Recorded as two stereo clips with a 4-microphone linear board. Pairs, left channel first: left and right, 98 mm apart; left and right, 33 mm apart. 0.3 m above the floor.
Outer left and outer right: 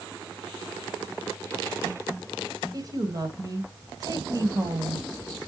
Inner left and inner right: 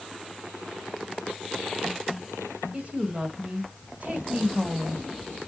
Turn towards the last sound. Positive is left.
turn(degrees=-40)  # may be behind; listen again after turning